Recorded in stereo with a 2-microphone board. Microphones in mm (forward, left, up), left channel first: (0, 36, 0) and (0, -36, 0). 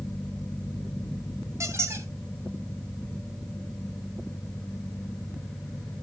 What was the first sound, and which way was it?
A squeak, 40° right (ahead or behind).